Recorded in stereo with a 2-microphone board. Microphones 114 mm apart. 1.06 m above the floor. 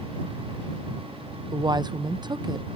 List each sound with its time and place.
1.5 s a woman speaking: 40° right (ahead or behind)